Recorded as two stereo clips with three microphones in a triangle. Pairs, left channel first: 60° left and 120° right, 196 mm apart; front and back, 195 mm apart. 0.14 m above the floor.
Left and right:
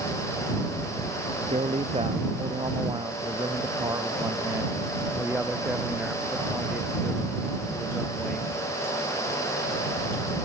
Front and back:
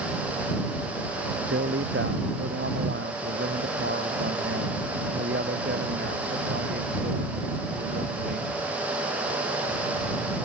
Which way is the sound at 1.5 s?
175° right.